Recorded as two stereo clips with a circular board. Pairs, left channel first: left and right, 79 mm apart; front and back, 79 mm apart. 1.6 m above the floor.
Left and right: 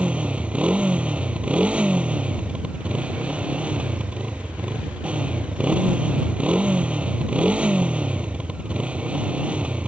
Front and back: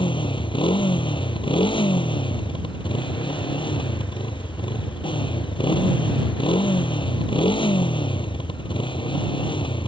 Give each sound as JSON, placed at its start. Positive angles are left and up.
{"t": 0.0, "sound": "a motorcycle", "azimuth_deg": -15}